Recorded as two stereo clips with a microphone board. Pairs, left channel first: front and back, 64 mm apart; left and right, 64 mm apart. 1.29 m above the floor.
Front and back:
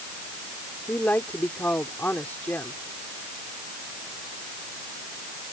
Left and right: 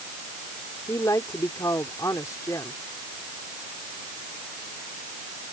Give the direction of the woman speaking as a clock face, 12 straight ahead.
10 o'clock.